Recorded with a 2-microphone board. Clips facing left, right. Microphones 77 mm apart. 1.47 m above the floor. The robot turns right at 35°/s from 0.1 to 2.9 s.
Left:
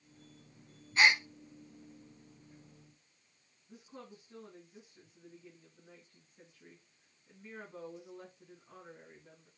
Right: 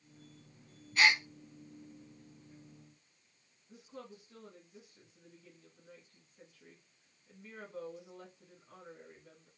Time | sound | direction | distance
1.0 | a gasp | 30° left (ahead or behind) | 0.8 m
3.7 | a woman speaking | 25° left (ahead or behind) | 2 m